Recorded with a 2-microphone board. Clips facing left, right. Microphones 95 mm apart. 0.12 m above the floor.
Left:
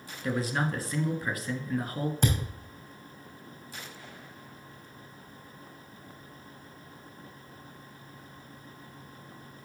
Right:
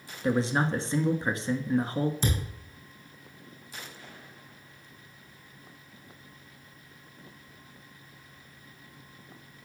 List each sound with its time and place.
0.2 s a man speaking: 25° right (ahead or behind), 1.2 m
2.2 s a thud: 60° left (ahead or behind), 3.5 m